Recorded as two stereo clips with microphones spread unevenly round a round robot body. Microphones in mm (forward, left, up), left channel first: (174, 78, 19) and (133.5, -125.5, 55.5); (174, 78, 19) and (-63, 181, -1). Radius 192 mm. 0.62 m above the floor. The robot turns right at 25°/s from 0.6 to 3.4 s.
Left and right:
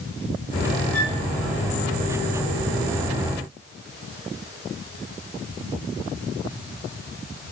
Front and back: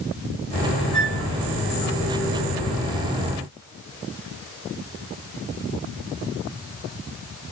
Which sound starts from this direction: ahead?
A flute, at 0.9 s.